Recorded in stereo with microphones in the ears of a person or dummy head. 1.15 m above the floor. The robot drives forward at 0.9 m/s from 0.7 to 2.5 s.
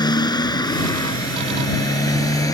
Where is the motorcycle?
20° left (ahead or behind); by 2.5 s 15° left (ahead or behind).